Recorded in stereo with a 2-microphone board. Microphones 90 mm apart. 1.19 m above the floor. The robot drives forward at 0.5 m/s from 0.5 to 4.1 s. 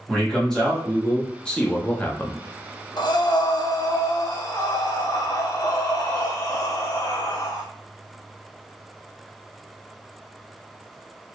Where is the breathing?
55° left (ahead or behind), 0.6 m; by 7.6 s 40° left (ahead or behind), 0.8 m.